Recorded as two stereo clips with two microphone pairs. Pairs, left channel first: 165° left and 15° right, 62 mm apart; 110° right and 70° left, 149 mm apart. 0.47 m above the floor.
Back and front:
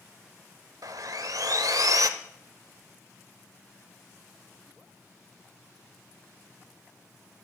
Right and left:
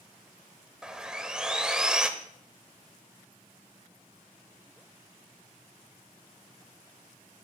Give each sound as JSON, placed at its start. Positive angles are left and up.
{"t": 0.8, "sound": "sawing", "azimuth_deg": -15, "distance_m": 0.7}